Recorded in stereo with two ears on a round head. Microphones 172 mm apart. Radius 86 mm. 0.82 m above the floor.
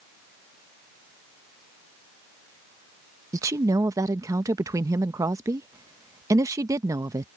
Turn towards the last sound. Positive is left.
turn(degrees=-15)  # may be behind; listen again after turning